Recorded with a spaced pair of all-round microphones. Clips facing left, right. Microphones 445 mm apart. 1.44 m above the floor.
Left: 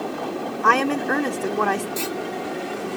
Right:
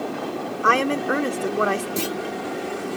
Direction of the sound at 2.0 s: 50° right (ahead or behind).